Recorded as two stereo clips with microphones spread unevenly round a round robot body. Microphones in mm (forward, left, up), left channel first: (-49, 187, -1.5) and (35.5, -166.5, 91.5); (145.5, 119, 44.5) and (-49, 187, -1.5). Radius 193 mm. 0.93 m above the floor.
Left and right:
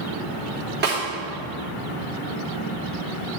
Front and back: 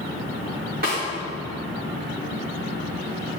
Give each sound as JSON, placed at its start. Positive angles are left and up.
{"t": 0.8, "sound": "a snare drum", "azimuth_deg": -145, "distance_m": 3.0}